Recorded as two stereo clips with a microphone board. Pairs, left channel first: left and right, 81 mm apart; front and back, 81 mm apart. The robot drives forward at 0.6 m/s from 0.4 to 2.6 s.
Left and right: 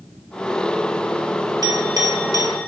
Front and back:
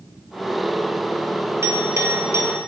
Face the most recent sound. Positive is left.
turn(degrees=-130)